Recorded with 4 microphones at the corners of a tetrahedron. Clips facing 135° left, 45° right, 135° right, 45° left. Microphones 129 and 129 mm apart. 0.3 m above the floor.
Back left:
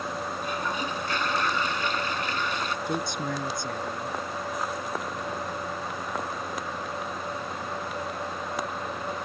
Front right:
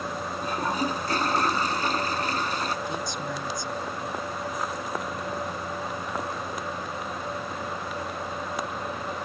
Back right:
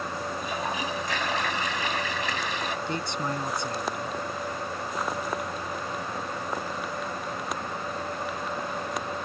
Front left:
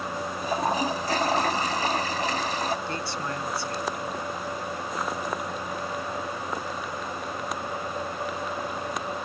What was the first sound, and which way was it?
A toilet flushing, straight ahead.